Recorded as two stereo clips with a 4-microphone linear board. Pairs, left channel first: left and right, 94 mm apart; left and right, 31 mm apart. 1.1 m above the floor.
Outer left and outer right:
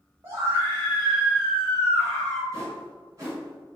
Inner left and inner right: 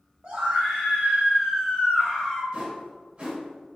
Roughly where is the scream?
Right.